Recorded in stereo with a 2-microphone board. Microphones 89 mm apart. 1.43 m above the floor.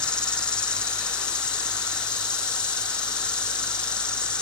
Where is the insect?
10° left (ahead or behind), 0.8 m.